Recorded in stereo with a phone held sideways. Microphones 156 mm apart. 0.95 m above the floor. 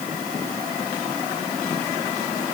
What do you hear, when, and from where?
Only background noise.